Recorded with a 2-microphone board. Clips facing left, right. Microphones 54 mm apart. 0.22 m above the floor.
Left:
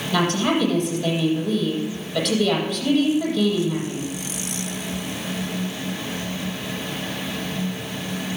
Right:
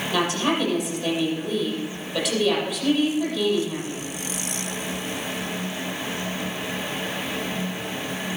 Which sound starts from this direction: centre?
A woman speaking, at 0.1 s.